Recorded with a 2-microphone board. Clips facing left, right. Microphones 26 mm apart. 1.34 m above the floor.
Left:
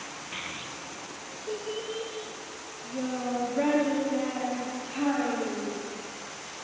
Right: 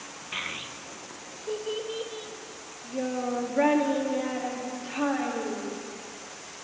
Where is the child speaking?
20° right (ahead or behind), 0.6 m; by 5.8 s 10° right (ahead or behind), 3.5 m.